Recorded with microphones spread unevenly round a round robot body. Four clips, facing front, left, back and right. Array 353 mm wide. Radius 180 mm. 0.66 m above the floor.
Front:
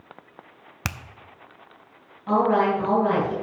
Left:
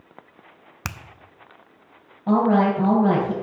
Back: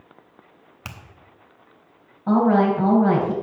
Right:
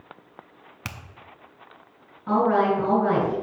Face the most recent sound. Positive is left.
turn(degrees=130)